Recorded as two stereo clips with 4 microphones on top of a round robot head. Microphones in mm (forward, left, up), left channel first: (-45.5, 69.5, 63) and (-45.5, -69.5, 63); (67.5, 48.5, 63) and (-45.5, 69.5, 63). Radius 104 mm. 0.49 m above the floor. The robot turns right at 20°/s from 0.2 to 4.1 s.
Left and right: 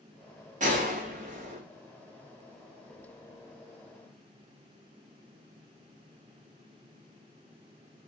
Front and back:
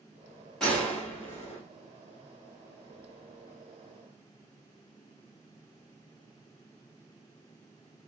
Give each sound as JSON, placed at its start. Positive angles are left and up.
{"t": 0.6, "sound": "a gunshot", "azimuth_deg": -95, "distance_m": 1.4}